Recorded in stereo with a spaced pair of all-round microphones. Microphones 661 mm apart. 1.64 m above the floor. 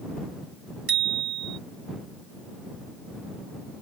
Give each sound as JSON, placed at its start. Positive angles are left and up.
{"t": 0.9, "sound": "a bicycle bell", "side_deg": -35}